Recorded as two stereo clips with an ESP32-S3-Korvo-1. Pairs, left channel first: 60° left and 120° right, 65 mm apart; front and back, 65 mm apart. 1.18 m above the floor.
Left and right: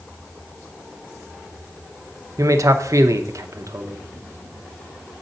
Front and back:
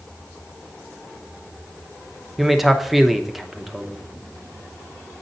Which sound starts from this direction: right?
A man speaking, at 2.4 s.